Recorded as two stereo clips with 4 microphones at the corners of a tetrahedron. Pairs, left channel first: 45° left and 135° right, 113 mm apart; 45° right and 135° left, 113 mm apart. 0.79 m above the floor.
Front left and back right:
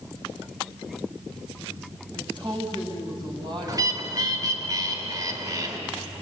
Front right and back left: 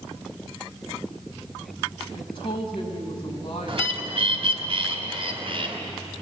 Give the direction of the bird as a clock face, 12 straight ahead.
6 o'clock.